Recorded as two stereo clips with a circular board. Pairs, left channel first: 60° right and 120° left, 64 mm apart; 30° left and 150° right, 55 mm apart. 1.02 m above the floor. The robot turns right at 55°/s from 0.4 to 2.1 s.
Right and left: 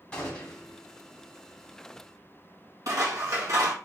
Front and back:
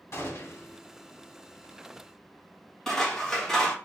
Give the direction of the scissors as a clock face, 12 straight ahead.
8 o'clock.